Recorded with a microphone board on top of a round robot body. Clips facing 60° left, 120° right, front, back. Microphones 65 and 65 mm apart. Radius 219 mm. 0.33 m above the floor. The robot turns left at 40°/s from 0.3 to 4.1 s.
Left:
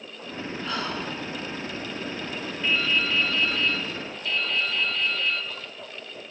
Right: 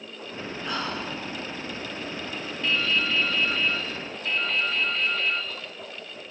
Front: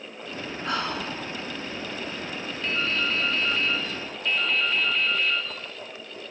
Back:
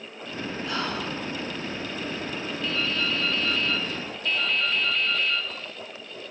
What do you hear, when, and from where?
0.7 s whispering: 35° right, 5 m; by 1.1 s 55° right, 5 m
2.6 s dripping: 15° right, 1.2 m; by 5.5 s 75° right, 1.2 m